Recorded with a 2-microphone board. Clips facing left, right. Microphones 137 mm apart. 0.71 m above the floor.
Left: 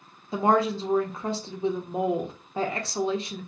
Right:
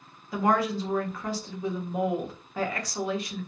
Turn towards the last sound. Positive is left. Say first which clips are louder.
# left 2 dB
turn(degrees=25)  # may be behind; listen again after turning